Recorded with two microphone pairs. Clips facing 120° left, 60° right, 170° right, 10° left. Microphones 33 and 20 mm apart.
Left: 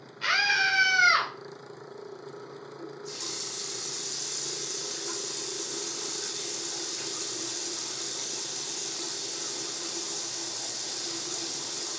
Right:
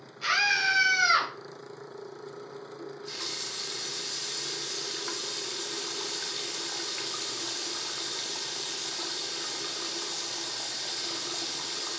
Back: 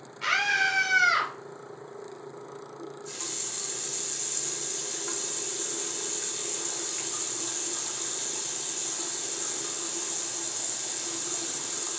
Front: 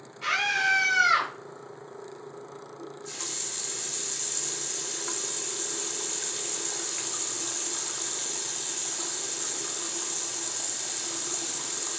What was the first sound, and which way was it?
A scream, 130° left.